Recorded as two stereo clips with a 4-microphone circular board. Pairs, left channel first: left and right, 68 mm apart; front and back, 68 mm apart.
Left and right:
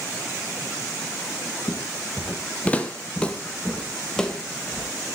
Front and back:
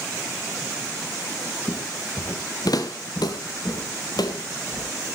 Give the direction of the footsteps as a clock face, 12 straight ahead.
11 o'clock.